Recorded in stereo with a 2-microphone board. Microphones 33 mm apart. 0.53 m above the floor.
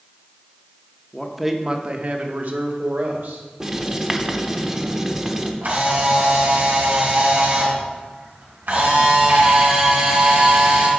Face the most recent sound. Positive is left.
turn(degrees=-75)  # may be behind; listen again after turning